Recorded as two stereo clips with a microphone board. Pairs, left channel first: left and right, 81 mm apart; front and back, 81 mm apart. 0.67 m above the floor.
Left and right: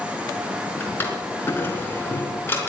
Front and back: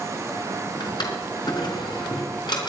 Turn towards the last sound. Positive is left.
turn(degrees=25)